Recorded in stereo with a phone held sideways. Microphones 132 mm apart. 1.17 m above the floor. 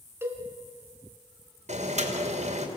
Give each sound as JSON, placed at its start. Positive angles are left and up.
{"t": 0.2, "sound": "a cowbell", "side_deg": -20, "distance_m": 2.5}
{"t": 1.7, "sound": "boiling", "side_deg": -60, "distance_m": 2.5}